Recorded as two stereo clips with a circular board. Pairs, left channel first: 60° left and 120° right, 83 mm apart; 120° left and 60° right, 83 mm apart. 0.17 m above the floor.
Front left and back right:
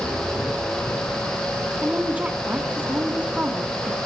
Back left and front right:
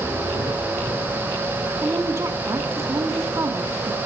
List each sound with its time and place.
1.8 s a woman speaking: 55° right, 2 m